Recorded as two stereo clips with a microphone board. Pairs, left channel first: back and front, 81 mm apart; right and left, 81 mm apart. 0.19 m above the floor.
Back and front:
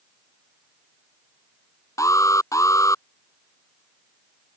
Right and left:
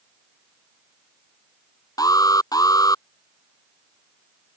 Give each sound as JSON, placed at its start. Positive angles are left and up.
{"t": 2.0, "sound": "an alarm", "azimuth_deg": -130}